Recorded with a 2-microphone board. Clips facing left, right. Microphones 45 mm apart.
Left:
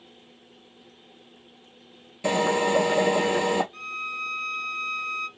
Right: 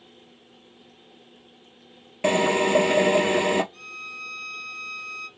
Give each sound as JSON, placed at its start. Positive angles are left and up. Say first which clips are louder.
{"t": 2.2, "sound": "a drill", "louder": "right 2 dB", "side_deg": -50, "distance_m": 1.6}
{"t": 3.7, "sound": "a violin", "louder": "left 5 dB", "side_deg": 40, "distance_m": 0.8}